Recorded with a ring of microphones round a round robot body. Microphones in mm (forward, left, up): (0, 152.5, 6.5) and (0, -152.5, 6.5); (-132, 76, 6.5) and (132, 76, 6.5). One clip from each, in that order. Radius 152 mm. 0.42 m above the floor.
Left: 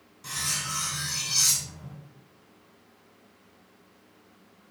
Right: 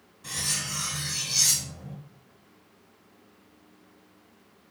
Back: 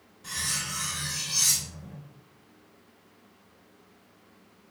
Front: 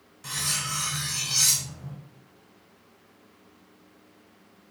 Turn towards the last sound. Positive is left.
turn(degrees=20)